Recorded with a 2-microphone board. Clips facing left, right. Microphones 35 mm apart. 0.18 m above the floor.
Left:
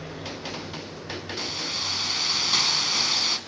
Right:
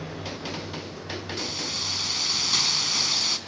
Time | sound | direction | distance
1.4 | a hiss | 15° left (ahead or behind) | 1.3 m